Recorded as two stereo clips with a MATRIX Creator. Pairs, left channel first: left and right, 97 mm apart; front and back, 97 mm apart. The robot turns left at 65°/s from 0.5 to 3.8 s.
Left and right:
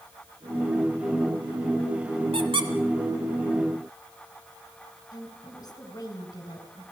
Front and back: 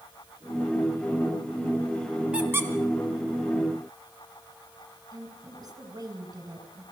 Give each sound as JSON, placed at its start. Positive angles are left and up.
{"t": 2.3, "sound": "a squeak", "azimuth_deg": -100, "distance_m": 2.0}
{"t": 5.1, "sound": "a woman speaking", "azimuth_deg": 135, "distance_m": 3.5}